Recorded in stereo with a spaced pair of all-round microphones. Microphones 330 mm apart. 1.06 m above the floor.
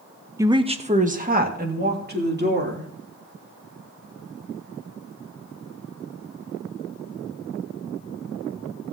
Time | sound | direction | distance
0.4 | a woman speaking | 10° right (ahead or behind) | 0.8 m